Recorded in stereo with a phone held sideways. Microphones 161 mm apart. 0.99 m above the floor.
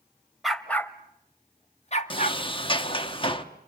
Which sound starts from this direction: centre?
A dog barking, at 0.4 s.